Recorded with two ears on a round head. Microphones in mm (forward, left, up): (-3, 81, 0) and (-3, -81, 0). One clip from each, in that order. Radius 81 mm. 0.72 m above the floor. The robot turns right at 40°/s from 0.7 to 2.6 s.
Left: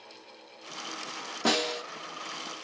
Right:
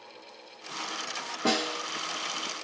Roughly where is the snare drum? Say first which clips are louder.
Left 1 dB; left.